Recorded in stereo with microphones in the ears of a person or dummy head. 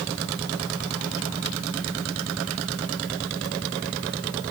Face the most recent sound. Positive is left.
No sound to turn to.